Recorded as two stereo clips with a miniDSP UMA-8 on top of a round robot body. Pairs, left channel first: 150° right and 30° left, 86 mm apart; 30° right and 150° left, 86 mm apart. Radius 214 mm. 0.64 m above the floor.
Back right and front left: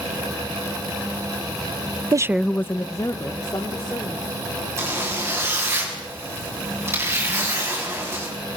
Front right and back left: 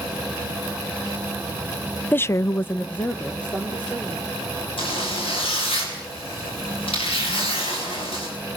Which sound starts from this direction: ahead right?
A zipper, at 4.8 s.